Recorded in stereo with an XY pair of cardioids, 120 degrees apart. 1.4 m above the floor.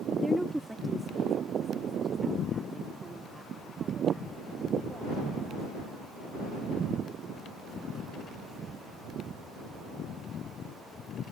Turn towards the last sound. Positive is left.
turn(degrees=-25)